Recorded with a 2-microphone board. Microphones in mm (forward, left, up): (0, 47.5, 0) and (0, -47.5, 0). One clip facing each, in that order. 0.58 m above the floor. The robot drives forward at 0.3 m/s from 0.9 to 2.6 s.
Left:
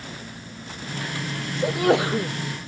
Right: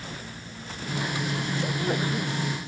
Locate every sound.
1.6 s a sneeze: 85° left